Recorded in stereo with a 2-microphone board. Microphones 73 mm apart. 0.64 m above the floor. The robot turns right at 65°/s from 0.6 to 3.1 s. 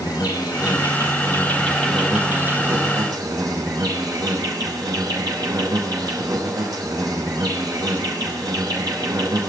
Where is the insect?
95° left, 6 m; by 9.5 s 105° right, 6 m.